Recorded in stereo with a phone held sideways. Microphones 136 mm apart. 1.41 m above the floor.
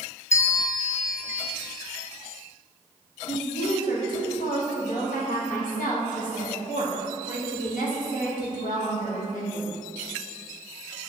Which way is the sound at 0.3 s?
20° left (ahead or behind).